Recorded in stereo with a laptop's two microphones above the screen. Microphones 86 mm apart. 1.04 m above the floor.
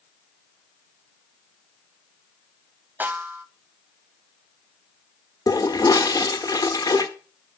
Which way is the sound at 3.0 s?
20° right (ahead or behind).